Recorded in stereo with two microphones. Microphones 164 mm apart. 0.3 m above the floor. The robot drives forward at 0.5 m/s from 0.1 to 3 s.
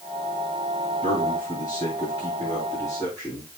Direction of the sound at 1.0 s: 25° left (ahead or behind).